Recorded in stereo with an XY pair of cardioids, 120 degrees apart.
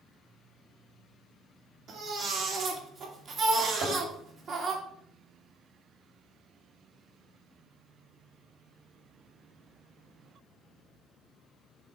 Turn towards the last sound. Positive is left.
turn(degrees=-65)